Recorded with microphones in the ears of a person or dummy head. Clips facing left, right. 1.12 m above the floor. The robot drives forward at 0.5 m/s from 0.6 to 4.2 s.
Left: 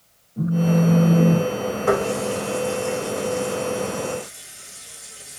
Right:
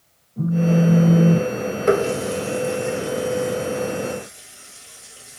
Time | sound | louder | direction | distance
0.4 | a phone buzzing | right 1 dB | 10° left (ahead or behind) | 1.2 m
1.9 | a running tap | right 3 dB | 25° right (ahead or behind) | 0.6 m